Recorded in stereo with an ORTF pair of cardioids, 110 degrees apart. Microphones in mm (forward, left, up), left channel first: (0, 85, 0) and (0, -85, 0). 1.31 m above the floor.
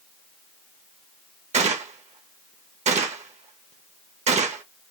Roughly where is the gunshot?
Ahead right.